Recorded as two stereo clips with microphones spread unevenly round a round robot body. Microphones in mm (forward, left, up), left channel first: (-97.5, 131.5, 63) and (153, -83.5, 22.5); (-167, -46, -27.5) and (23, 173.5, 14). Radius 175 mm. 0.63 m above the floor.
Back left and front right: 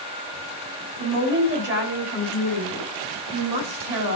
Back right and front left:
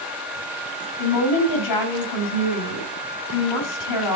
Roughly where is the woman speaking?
Right.